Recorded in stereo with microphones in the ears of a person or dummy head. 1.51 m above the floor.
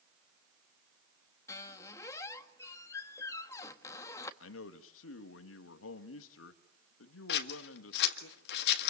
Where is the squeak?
20° left (ahead or behind), 1.5 m.